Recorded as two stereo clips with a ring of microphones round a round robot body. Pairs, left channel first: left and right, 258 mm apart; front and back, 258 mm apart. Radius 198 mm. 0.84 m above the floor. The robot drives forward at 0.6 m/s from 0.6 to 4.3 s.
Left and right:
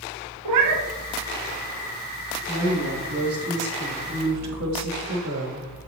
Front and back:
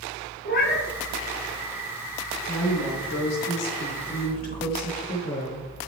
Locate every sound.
0.5 s a cat meowing: 65° right, 0.5 m; by 0.9 s 80° right, 0.5 m
2.5 s a woman speaking: 20° right, 1.6 m; by 5.7 s 50° right, 0.7 m